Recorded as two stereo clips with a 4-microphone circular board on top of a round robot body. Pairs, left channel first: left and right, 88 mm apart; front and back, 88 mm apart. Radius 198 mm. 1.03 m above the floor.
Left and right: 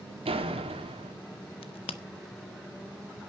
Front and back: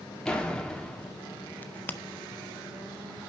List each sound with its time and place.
0.2 s a door slam: 85° right, 1.9 m
1.6 s a crack: 70° left, 0.5 m